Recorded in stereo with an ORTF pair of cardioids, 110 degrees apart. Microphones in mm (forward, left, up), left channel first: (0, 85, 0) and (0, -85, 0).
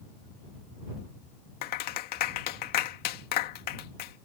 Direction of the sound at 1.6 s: 65° left.